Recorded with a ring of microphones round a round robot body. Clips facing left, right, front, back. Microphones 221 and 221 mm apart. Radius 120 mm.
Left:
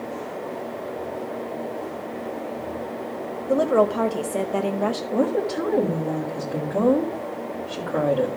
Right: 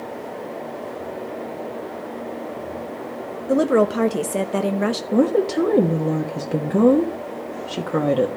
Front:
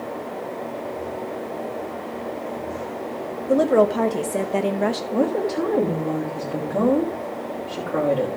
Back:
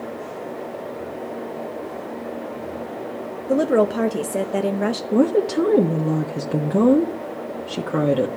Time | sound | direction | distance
3.5 | a woman speaking | 110° right | 0.9 m
5.1 | a woman speaking | 135° right | 1.3 m